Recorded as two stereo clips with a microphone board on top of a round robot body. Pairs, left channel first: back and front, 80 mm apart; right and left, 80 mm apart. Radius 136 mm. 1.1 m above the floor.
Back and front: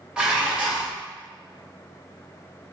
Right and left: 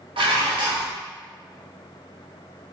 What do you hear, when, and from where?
0.2 s dishes clattering: 80° left, 0.7 m